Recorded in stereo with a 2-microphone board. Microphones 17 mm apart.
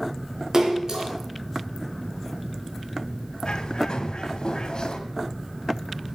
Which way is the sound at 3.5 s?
60° left (ahead or behind).